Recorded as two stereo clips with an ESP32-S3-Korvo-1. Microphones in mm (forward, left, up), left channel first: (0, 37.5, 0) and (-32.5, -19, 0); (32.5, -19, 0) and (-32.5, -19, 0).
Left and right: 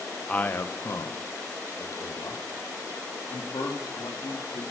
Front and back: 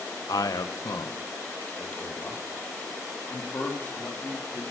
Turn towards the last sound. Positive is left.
turn(degrees=65)